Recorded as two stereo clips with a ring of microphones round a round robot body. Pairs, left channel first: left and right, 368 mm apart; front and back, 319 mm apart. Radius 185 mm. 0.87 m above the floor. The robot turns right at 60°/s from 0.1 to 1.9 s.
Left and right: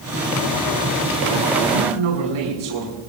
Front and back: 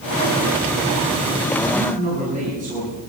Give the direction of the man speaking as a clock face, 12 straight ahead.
4 o'clock.